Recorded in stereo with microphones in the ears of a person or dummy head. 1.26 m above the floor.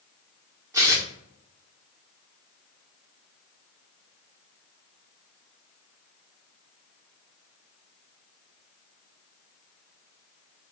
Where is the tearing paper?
20° right (ahead or behind), 1.1 m.